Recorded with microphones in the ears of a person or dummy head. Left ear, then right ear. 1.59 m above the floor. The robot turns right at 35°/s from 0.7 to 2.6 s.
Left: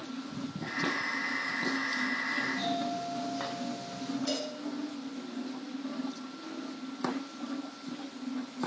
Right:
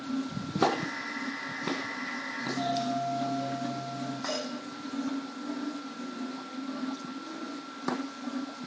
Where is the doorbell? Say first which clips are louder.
Right 1 dB; 55° left (ahead or behind), 1.3 m; by 4.2 s 65° left (ahead or behind), 1.3 m.